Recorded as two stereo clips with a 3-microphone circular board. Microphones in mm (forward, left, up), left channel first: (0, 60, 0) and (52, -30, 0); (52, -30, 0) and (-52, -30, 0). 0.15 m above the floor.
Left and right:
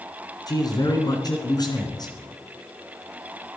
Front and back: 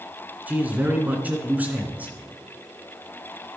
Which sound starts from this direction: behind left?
A man speaking, at 0.5 s.